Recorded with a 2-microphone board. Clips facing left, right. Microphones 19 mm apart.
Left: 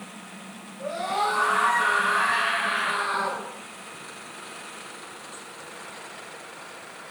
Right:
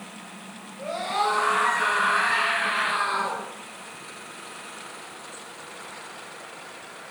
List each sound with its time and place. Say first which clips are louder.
0.8 s a scream: even; 40° right (ahead or behind), 3.5 m